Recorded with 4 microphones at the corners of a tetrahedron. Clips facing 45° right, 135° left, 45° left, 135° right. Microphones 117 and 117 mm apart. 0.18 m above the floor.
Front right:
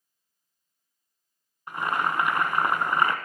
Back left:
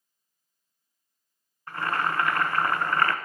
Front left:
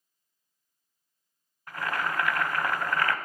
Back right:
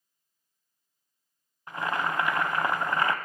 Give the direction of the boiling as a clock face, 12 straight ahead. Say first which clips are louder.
Front right 1 dB, back right 2 dB; 3 o'clock.